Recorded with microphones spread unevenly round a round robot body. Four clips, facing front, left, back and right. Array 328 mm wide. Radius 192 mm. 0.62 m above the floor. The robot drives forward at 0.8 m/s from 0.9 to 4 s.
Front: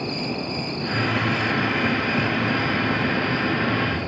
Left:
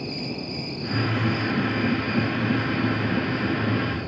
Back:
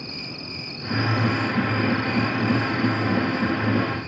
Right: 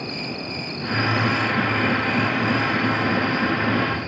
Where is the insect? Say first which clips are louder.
Right 1 dB, front 10 dB; 80° right, 1.3 m; by 4.1 s 150° right, 2.5 m.